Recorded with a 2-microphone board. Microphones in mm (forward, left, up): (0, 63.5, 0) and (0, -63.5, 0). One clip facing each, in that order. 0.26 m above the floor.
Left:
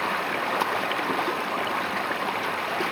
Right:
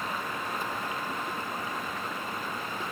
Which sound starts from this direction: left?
Running water, at 0.0 s.